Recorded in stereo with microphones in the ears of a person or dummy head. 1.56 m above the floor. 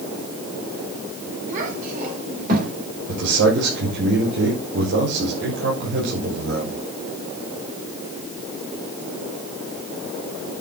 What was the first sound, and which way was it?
A child speaking, 45° right (ahead or behind).